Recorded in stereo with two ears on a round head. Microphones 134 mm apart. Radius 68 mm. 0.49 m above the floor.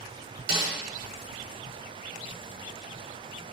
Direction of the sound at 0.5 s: 70° right (ahead or behind).